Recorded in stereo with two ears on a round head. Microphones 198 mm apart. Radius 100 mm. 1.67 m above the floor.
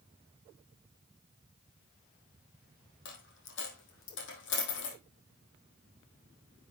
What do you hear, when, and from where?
3.0 s a dropped coin: 60° left (ahead or behind), 3.5 m